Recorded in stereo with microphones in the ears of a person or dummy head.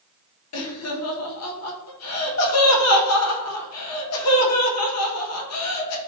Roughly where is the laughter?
Left.